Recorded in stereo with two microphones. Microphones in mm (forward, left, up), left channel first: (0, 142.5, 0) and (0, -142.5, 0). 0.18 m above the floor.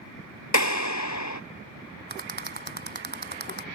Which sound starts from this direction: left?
A clap, at 0.5 s.